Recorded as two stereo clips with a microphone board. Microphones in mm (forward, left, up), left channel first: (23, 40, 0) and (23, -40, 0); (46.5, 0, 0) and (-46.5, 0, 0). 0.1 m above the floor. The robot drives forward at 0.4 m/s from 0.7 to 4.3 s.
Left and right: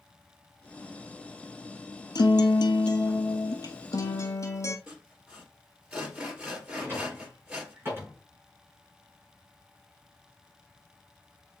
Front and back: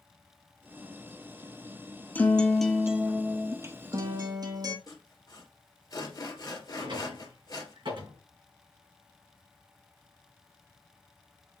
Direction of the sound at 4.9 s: 20° right.